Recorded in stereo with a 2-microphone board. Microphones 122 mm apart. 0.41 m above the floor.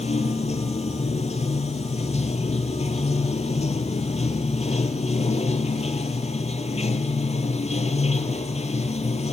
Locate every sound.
0.0 s running water: 65° left (ahead or behind), 1.1 m